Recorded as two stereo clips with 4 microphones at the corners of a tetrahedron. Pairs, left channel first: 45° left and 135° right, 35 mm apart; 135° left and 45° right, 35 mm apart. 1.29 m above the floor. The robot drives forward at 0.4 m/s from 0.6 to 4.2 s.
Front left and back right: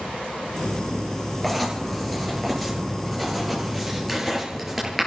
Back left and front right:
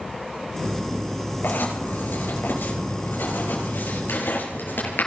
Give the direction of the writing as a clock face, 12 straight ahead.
8 o'clock.